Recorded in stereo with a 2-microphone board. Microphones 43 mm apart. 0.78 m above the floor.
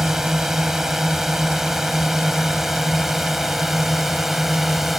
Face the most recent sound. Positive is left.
turn(degrees=-5)  # may be behind; listen again after turning